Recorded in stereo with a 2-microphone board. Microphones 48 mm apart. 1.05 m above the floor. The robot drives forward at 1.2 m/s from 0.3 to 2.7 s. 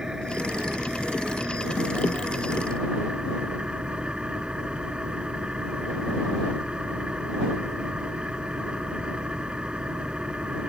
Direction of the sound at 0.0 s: 15° right (ahead or behind).